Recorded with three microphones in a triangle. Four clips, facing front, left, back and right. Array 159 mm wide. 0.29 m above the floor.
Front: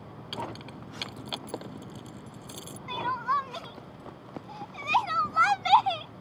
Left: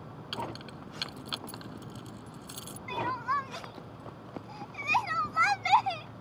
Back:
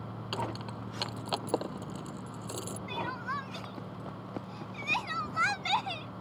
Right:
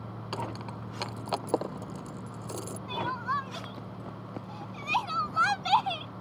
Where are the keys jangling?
115° right.